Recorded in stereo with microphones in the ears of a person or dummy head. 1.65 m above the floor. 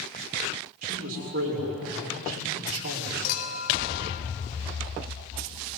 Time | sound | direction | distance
0.8 | a man speaking | 50° right (ahead or behind) | 6 m
3.2 | a clink | 55° left (ahead or behind) | 2.5 m